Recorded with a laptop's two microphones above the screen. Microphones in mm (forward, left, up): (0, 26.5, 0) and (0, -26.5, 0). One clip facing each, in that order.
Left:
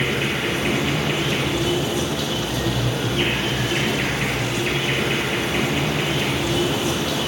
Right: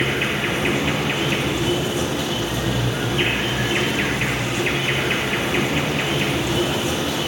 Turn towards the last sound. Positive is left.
turn(degrees=-30)  # may be behind; listen again after turning